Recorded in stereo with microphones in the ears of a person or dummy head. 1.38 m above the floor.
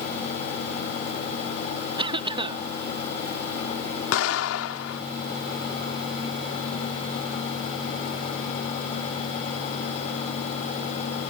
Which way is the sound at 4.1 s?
80° left.